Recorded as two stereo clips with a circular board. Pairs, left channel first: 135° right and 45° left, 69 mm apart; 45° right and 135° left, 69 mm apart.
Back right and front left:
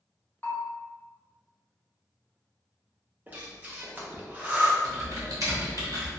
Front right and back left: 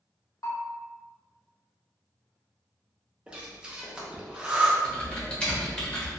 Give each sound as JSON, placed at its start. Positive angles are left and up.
{"t": 0.4, "sound": "a bell", "azimuth_deg": -75, "distance_m": 0.7}
{"t": 3.3, "sound": "breathing", "azimuth_deg": 75, "distance_m": 0.6}
{"t": 4.8, "sound": "typing on a keyboard", "azimuth_deg": 30, "distance_m": 1.1}